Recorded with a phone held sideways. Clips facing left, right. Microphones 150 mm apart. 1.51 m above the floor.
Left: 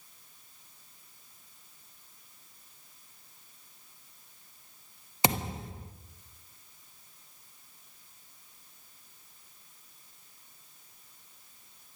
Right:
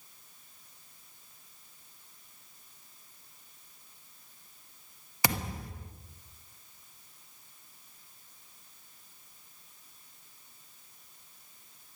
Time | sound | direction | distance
5.2 | a thud | 25° left (ahead or behind) | 0.9 m